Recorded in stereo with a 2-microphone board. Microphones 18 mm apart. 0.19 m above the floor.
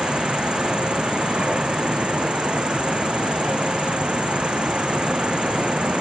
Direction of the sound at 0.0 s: 75° right (ahead or behind).